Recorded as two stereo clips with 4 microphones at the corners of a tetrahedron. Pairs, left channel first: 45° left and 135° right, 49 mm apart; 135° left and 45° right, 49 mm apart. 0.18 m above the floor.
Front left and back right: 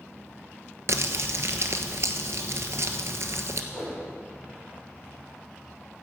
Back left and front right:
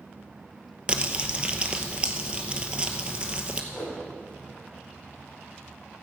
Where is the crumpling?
110° right, 1.0 m.